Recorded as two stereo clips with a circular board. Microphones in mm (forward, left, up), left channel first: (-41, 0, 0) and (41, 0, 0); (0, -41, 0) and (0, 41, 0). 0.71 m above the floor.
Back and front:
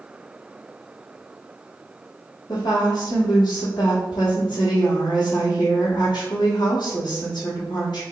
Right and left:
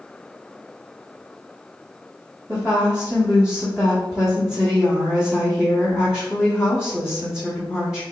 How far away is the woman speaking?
About 1.3 m.